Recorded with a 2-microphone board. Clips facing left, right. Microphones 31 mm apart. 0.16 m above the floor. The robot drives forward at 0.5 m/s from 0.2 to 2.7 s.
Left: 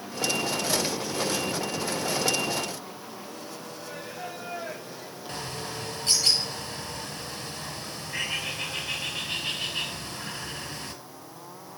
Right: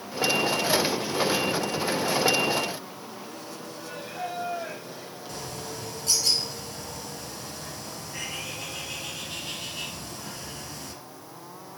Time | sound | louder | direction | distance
3.8 | singing | right 4 dB | 25° right (ahead or behind) | 4.5 m
5.3 | a bird | left 2 dB | 45° left (ahead or behind) | 1.8 m